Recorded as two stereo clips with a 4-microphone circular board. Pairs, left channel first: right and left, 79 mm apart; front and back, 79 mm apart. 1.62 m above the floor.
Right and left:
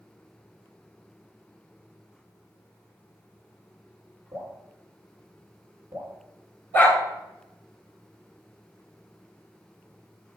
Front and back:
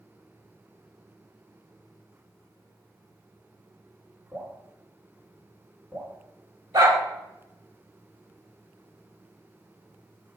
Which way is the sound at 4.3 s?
125° left.